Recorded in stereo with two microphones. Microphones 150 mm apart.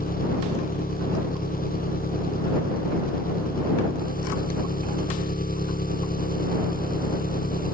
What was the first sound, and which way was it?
An engine running, 70° left (ahead or behind).